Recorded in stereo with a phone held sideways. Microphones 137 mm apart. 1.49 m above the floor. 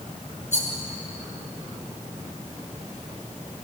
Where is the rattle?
60° left (ahead or behind), 5.5 m.